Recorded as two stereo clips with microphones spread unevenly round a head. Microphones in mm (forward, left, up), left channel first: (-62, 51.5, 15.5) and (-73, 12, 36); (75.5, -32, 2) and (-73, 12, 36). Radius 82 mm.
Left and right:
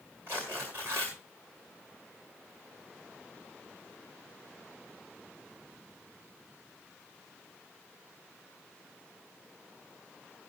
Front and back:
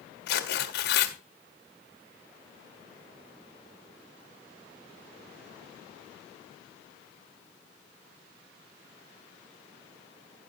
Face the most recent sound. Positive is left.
turn(degrees=-40)